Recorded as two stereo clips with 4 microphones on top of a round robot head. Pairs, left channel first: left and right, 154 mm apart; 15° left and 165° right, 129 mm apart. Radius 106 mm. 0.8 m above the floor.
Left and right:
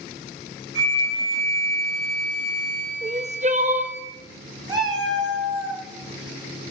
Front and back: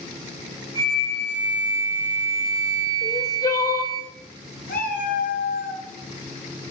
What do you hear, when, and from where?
0.8 s a flute: 90° right, 3.5 m
3.0 s crying: 50° right, 0.7 m
4.7 s a cat meowing: 30° right, 1.3 m